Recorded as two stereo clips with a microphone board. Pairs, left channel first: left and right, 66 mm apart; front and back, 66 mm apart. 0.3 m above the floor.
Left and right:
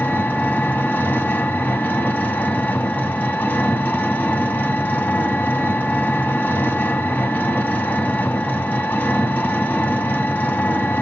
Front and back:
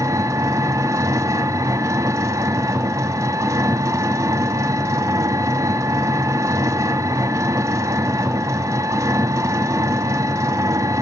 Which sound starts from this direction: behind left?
An engine running, at 0.0 s.